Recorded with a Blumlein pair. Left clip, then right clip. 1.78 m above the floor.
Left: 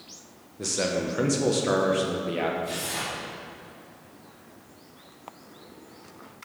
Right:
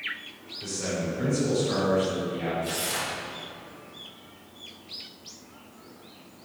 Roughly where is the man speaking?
Ahead left.